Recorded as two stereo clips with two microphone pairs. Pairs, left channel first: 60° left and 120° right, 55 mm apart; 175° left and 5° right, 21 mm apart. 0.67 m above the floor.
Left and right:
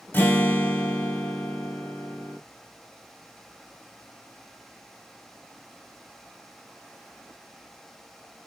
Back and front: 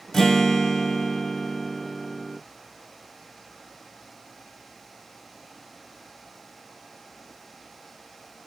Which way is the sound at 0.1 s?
105° left.